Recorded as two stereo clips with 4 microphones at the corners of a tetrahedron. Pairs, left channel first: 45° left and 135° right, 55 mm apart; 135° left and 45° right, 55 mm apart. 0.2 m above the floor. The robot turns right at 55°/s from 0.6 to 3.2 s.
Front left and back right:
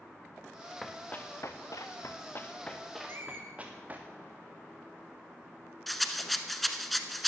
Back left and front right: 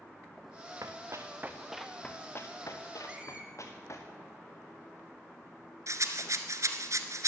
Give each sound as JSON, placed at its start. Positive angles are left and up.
{"t": 0.8, "sound": "running footsteps", "azimuth_deg": -40, "distance_m": 1.6}
{"t": 3.1, "sound": "a squeak", "azimuth_deg": -110, "distance_m": 1.7}
{"t": 5.9, "sound": "a rattle", "azimuth_deg": -45, "distance_m": 1.0}